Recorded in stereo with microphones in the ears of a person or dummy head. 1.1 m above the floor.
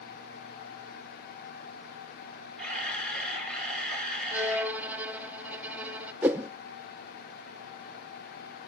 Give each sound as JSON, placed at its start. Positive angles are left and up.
{"t": 2.6, "sound": "a camera shutter", "side_deg": 5, "distance_m": 5.5}
{"t": 4.3, "sound": "a violin", "side_deg": -10, "distance_m": 0.8}
{"t": 6.2, "sound": "a whoosh", "side_deg": -5, "distance_m": 0.6}